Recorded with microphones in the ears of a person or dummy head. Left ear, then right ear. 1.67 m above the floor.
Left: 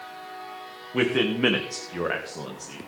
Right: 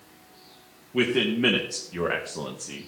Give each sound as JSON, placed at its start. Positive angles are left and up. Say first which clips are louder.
{"t": 0.9, "sound": "a man speaking", "louder": "even", "side_deg": 40, "distance_m": 1.0}